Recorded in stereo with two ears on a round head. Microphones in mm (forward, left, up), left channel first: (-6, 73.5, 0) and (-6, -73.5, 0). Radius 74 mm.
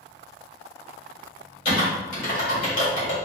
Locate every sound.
1.6 s typing on a keyboard: 55° left (ahead or behind), 1.6 m